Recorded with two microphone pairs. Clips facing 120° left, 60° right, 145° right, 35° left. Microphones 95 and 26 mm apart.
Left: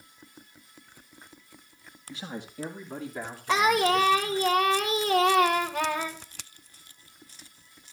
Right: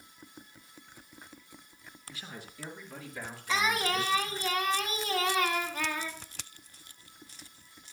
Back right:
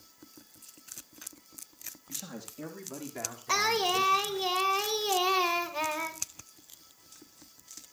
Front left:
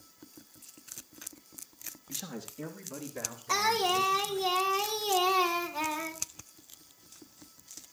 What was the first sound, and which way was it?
A man speaking, 120° left.